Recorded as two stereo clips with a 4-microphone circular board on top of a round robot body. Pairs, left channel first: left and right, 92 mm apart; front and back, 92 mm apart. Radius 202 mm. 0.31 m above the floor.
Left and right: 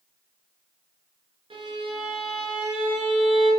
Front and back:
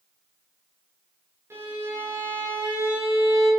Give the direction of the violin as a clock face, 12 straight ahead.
4 o'clock.